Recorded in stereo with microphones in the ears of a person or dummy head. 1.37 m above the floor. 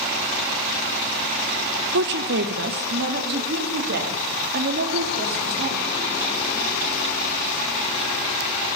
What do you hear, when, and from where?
1.9 s a woman speaking: 60° right (ahead or behind), 0.6 m; by 6.0 s 55° right (ahead or behind), 3 m